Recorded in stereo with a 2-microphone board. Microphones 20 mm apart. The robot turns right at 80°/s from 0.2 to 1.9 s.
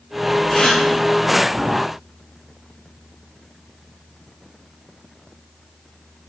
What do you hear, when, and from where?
0.5 s a gasp: 40° left (ahead or behind), 3 m; by 0.8 s 65° left (ahead or behind), 3 m